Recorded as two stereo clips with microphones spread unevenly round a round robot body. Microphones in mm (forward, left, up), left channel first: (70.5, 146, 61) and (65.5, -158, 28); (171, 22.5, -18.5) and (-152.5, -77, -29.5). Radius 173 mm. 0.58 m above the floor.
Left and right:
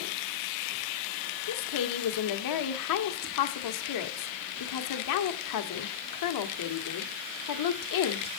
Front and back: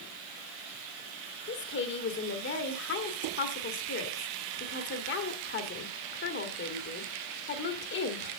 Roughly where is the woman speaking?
Left.